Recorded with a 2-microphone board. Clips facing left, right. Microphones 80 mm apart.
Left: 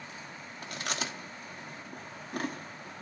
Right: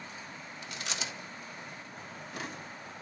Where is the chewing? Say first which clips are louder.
Left 4 dB; 50° left (ahead or behind), 1.2 m.